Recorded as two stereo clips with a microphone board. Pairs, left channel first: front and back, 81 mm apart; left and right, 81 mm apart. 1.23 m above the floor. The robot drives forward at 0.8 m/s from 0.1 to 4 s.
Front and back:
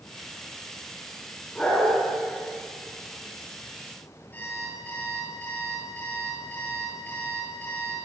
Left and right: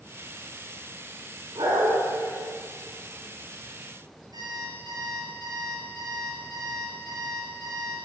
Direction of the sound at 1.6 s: 75° right.